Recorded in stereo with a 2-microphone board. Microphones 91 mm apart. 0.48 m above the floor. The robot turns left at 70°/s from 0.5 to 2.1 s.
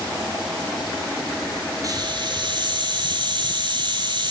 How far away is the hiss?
About 9.5 m.